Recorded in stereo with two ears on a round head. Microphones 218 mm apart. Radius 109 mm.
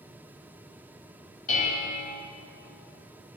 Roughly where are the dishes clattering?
Left.